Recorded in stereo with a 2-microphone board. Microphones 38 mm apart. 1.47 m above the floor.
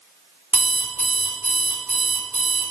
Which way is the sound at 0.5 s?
55° right (ahead or behind).